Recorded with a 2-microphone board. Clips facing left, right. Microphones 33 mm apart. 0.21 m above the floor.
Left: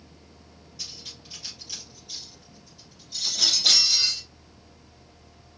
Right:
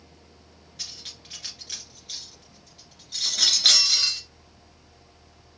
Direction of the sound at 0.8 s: 55° right (ahead or behind).